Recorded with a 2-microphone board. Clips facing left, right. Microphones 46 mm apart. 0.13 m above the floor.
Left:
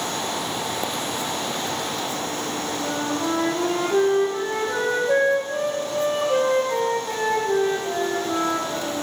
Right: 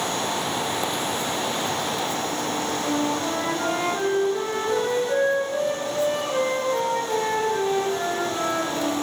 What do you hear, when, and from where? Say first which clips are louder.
2.8 s a flute: even; 40° left (ahead or behind), 3.5 m